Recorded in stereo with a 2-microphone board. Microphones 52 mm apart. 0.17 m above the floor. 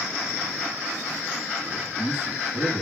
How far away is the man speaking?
About 5 m.